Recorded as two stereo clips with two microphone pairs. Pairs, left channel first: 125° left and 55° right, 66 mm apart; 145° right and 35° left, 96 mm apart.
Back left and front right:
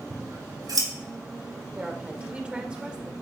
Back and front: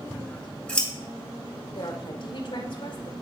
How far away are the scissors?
About 6 m.